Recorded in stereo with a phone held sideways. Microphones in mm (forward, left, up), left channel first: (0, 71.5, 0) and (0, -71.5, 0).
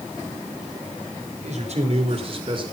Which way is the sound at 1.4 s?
55° right (ahead or behind).